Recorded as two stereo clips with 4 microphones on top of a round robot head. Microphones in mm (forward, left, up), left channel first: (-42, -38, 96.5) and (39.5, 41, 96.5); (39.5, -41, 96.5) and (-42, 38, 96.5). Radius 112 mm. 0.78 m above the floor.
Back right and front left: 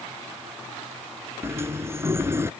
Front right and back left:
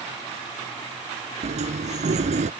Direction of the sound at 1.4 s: 115° left.